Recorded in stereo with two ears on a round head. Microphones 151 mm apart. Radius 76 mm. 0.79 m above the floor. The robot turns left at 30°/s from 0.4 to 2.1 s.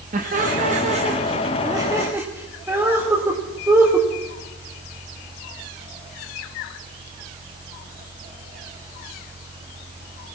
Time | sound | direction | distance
0.1 | laughter | 45° right (ahead or behind) | 1.3 m